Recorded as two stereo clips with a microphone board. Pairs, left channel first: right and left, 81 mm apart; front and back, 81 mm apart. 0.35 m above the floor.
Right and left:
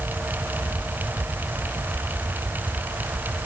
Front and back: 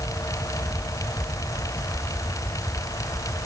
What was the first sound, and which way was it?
Only background noise.